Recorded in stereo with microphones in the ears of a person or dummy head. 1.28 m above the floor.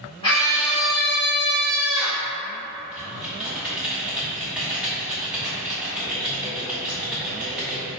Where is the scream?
25° left (ahead or behind), 1.4 m; by 2.3 s 40° right (ahead or behind), 2.5 m.